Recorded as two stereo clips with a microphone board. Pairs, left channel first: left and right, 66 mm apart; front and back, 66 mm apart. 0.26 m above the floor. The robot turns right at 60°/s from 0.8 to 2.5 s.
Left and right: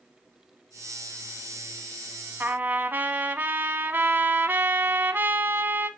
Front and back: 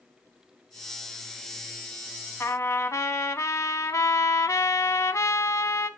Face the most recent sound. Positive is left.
turn(degrees=-35)